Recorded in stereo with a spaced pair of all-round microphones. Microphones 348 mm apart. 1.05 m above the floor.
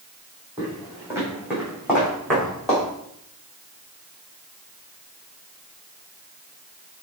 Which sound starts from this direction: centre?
Footsteps, at 0.6 s.